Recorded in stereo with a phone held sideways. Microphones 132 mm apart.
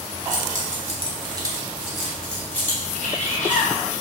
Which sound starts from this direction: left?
A bird, at 3.0 s.